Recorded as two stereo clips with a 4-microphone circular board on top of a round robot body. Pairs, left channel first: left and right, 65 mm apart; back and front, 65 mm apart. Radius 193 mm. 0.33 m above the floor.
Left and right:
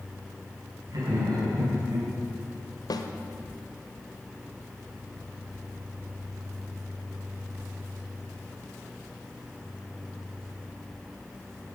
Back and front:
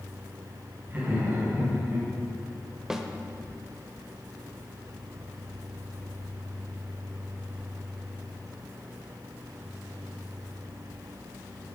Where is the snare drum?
85° left, 1.3 m.